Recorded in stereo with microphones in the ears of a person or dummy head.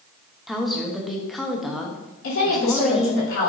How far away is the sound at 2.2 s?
About 3 m.